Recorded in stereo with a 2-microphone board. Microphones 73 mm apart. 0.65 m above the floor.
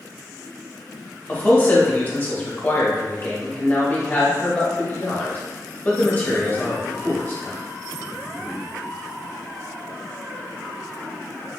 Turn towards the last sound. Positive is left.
turn(degrees=25)  # may be behind; listen again after turning